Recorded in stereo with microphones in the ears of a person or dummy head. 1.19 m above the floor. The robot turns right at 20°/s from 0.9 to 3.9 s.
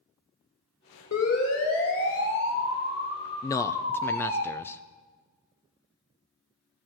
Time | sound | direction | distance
1.1 | a siren | 80° left | 3.5 m
3.4 | a man speaking | 20° left (ahead or behind) | 0.5 m